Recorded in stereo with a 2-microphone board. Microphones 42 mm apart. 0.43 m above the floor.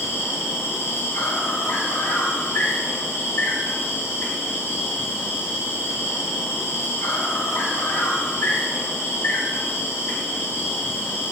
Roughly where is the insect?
Left.